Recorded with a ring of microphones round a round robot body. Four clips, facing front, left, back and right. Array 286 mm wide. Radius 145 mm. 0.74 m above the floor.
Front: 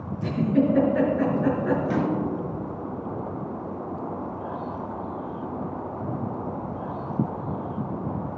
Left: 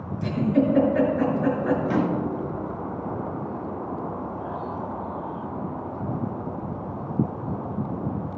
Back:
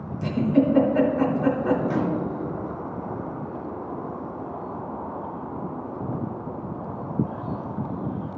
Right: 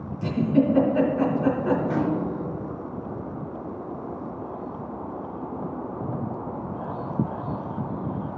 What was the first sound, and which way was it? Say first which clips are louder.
A giggle: right 1 dB, back 2 dB; 160° left.